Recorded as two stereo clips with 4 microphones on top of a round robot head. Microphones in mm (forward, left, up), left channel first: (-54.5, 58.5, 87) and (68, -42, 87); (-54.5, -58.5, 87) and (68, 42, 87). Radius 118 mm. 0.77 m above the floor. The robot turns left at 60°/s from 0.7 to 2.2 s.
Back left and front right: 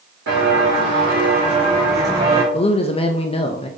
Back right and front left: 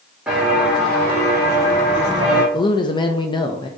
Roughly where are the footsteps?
Ahead right.